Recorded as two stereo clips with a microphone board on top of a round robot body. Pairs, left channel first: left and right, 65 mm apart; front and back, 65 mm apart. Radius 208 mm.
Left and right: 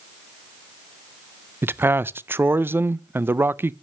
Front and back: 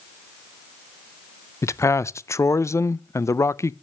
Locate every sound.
1.6 s a man speaking: 35° right, 0.6 m